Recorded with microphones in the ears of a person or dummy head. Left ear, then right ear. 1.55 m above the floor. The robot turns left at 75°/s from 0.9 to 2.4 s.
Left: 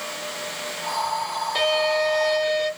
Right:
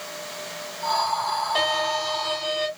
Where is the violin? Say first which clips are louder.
Left 6 dB; 15° left, 2 m; by 2.7 s 50° right, 2 m.